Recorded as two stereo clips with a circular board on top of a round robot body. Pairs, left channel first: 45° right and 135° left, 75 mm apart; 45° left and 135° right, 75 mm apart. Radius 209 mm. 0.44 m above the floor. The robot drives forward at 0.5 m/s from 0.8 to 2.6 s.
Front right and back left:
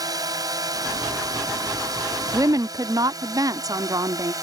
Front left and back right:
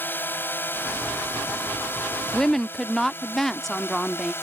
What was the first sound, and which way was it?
A drone, 105° left.